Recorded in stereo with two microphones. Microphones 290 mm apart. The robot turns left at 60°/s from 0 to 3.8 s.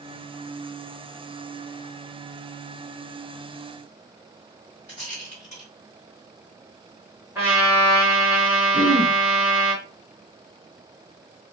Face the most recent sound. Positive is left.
turn(degrees=-40)  # may be behind; listen again after turning